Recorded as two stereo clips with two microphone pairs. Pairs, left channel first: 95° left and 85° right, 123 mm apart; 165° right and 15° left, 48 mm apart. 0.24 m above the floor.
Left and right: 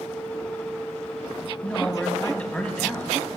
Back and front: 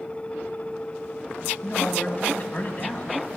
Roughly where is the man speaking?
Behind.